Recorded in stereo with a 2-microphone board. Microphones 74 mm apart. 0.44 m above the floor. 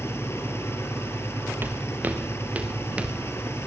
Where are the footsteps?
30° right (ahead or behind), 2.5 m; by 3.2 s 15° right (ahead or behind), 3.5 m.